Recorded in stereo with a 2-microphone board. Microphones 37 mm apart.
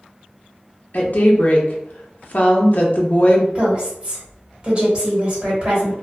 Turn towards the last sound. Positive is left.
turn(degrees=-30)  # may be behind; listen again after turning